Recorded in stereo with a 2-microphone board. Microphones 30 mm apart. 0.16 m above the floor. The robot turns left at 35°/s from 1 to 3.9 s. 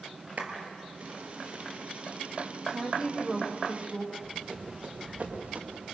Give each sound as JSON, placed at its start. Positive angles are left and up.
{"t": 0.4, "sound": "a clap", "side_deg": -60, "distance_m": 3.0}
{"t": 2.7, "sound": "a woman speaking", "azimuth_deg": -145, "distance_m": 5.0}
{"t": 4.1, "sound": "running footsteps", "side_deg": -35, "distance_m": 6.0}